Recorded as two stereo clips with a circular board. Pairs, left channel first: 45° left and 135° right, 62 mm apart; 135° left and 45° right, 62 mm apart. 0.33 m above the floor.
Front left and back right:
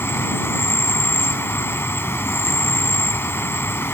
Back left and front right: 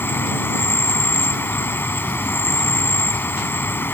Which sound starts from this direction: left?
An insect, at 0.0 s.